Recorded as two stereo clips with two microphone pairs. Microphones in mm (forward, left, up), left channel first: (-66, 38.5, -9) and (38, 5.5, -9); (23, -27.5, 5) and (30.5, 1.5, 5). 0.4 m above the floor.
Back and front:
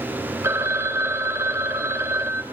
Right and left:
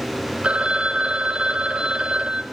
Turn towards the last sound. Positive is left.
turn(degrees=40)